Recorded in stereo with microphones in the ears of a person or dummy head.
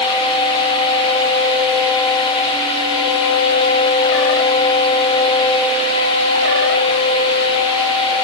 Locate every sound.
Only background noise.